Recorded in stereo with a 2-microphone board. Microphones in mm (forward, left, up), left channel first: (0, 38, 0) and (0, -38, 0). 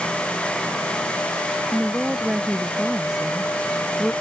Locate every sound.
1.7 s a woman speaking: 5° right (ahead or behind)